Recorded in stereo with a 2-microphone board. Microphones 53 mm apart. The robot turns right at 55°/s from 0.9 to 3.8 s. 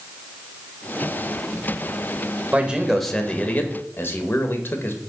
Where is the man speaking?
30° right, 1.4 m; by 5.0 s 40° left, 1.4 m.